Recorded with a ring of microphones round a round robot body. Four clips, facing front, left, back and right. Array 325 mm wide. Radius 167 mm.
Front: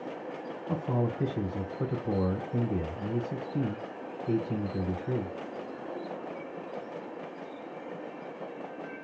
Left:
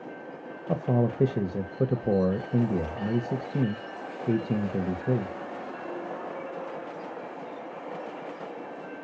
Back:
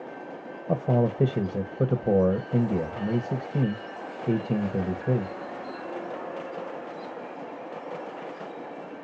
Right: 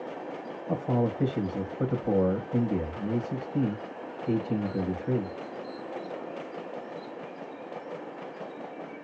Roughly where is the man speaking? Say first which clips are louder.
Left 1 dB, back 7 dB; behind left.